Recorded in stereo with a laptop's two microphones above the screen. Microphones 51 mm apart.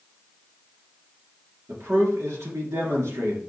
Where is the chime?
I don't hear a chime.